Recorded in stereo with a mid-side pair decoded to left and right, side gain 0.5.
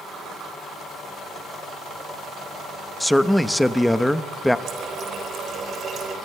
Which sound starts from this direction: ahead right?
A running tap, at 4.7 s.